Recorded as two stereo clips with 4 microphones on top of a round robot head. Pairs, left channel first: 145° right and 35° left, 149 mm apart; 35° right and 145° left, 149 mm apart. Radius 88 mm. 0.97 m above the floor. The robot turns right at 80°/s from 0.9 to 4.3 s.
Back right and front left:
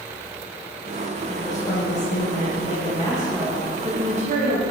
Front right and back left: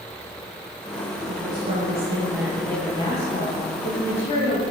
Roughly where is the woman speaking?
Behind left.